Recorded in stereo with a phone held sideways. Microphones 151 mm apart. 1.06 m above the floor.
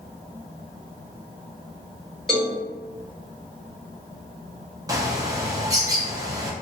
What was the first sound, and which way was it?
A cowbell, centre (ahead or behind).